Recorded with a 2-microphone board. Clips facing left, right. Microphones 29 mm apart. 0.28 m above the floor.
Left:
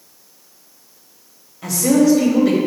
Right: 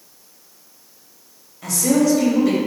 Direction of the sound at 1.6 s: 10° left (ahead or behind).